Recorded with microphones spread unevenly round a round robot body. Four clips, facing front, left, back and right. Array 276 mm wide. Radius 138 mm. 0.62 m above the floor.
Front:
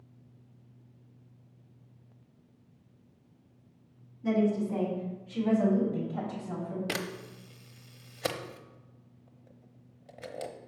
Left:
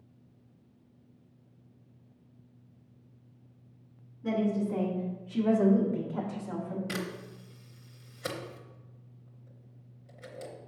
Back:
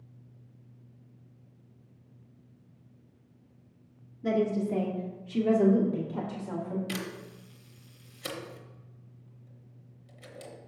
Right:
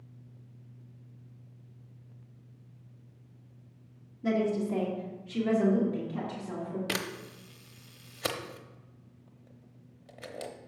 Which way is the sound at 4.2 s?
140° right.